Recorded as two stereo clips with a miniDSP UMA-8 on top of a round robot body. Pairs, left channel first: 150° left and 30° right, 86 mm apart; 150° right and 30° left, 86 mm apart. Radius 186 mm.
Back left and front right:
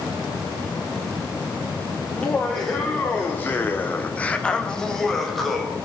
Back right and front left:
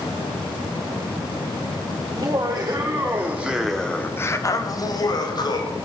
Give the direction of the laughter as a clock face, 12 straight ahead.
9 o'clock.